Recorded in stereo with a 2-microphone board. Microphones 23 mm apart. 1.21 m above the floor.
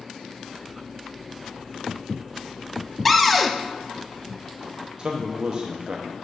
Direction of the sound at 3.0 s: 5° left (ahead or behind).